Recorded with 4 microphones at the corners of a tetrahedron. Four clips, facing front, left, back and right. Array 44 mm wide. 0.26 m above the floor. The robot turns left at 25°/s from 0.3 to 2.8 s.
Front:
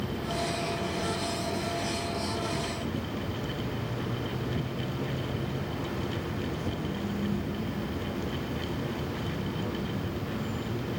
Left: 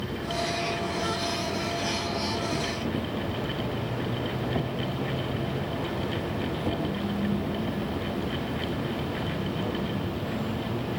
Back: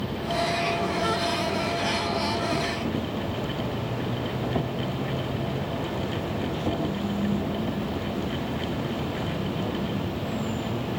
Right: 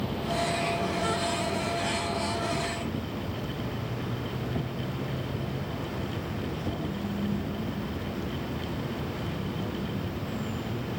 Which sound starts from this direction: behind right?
An insect, at 0.0 s.